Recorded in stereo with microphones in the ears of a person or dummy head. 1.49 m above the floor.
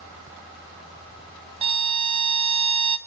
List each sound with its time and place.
1.6 s a violin: 25° right (ahead or behind), 0.5 m